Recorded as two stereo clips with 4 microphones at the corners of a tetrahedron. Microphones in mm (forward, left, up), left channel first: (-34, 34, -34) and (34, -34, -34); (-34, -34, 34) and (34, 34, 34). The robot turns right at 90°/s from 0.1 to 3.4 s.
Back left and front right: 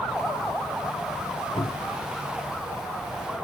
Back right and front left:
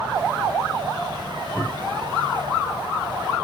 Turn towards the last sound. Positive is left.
turn(degrees=-55)